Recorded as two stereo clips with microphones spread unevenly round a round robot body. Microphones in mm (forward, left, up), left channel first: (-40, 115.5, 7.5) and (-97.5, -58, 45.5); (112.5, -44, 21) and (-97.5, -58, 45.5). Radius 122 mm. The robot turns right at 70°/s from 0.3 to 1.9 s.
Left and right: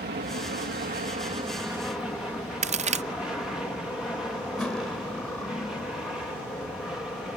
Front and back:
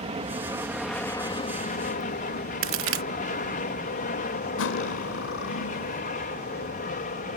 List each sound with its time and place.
0.0 s an aircraft: 120° right; by 7.4 s 10° right
2.6 s a crack: 160° right
4.6 s cutlery clinking: 20° right